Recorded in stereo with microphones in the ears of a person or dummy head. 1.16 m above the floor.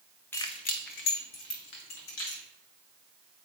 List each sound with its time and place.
0.3 s keys jangling: 10° left (ahead or behind), 0.8 m; by 2.4 s 85° left, 3 m